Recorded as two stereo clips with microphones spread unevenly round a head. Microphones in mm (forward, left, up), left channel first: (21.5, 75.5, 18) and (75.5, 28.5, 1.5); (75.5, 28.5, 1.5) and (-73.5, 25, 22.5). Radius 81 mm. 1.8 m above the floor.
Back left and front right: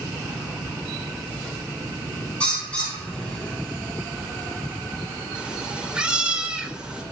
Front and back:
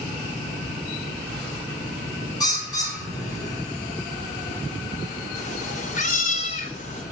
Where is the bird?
65° left, 8.5 m.